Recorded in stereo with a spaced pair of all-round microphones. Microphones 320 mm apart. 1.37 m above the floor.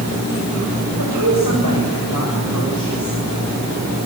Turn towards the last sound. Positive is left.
turn(degrees=-80)